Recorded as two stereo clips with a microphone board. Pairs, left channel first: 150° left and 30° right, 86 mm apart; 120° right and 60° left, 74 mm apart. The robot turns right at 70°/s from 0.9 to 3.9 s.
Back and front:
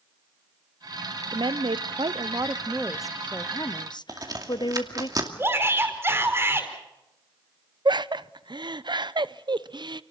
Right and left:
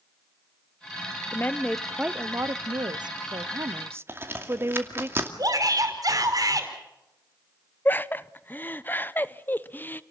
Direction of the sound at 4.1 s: 10° left.